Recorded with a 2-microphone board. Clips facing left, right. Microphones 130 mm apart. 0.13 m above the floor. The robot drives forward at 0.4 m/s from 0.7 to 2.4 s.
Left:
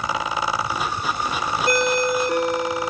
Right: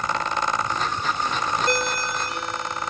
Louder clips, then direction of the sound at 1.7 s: Left 6 dB; 60° left (ahead or behind).